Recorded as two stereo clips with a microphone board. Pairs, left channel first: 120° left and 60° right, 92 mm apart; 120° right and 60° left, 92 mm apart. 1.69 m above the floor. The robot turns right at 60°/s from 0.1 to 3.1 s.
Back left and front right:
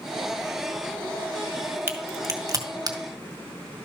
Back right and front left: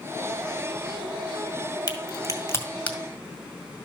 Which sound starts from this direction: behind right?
A crack, at 1.9 s.